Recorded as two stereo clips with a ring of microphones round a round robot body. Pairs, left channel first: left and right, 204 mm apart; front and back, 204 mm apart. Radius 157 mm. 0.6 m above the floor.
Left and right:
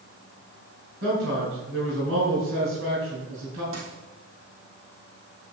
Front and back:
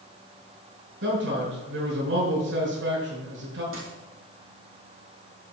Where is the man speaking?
140° right, 6.5 m.